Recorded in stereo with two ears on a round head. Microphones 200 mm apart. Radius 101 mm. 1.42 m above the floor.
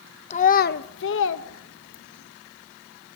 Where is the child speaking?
30° left (ahead or behind), 0.7 m; by 2.3 s 70° left (ahead or behind), 1.5 m.